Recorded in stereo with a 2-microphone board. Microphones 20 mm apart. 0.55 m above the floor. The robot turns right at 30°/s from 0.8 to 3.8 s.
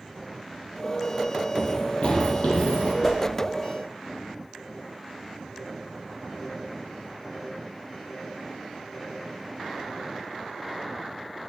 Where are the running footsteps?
45° left (ahead or behind), 0.7 m; by 2.9 s 55° left (ahead or behind), 1.4 m.